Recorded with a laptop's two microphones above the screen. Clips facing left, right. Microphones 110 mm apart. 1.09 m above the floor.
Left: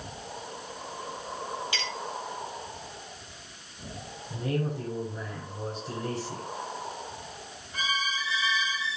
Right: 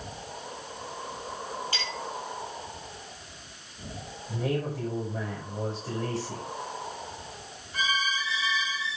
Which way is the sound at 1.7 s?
35° right (ahead or behind).